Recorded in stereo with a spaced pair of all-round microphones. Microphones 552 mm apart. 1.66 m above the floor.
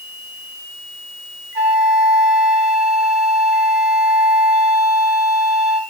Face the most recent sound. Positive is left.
turn(degrees=-45)  # may be behind; listen again after turning